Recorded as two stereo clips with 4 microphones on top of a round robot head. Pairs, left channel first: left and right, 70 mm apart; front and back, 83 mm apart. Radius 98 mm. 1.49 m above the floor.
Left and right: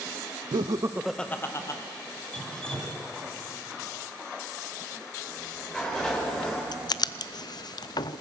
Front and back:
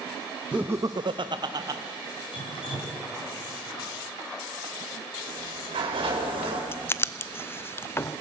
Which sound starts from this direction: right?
Laughter, at 0.5 s.